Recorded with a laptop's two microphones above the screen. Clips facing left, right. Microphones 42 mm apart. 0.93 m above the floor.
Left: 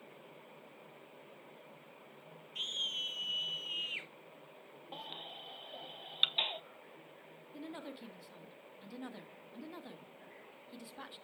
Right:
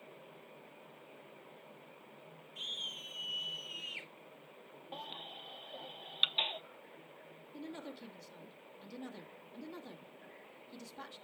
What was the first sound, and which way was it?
A scream, 60° left (ahead or behind).